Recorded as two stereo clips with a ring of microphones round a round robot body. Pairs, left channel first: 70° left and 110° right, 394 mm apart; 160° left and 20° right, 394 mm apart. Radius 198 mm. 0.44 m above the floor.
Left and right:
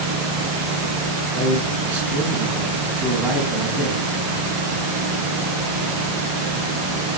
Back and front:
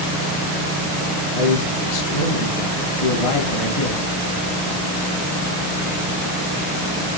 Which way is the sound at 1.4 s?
160° left.